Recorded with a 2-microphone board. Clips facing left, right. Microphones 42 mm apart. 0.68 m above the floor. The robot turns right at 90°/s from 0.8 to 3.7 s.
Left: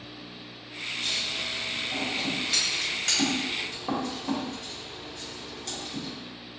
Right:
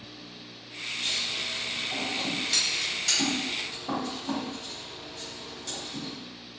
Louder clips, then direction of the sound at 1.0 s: Even; 50° right (ahead or behind).